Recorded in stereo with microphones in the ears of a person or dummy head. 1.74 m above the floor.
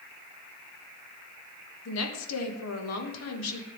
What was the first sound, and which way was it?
A woman speaking, 80° left.